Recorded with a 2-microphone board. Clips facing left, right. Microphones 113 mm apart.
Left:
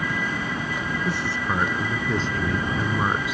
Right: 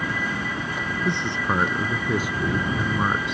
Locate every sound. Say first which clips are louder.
1.1 s a man speaking: right 4 dB; 25° right (ahead or behind); by 3.3 s 5° left (ahead or behind)